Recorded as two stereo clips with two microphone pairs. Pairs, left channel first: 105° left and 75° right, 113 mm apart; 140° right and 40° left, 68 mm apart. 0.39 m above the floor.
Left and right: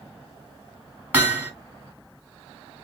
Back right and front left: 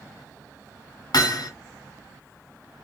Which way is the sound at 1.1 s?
145° right.